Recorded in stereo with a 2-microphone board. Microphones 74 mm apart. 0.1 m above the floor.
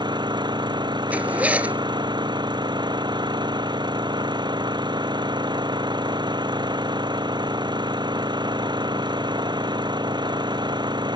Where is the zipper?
20° right (ahead or behind).